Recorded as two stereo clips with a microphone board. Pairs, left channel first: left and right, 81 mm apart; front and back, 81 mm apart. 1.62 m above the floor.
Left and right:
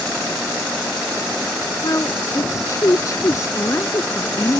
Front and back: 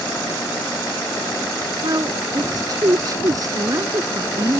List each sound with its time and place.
1.8 s a woman speaking: 140° left